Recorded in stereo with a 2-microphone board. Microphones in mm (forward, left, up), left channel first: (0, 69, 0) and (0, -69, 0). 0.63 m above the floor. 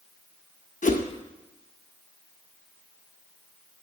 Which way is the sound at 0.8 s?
70° left (ahead or behind).